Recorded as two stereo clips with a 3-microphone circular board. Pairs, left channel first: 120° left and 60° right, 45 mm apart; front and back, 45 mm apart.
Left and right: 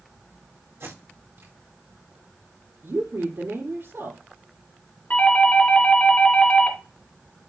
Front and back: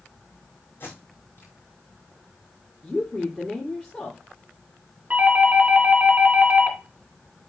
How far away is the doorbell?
About 2 m.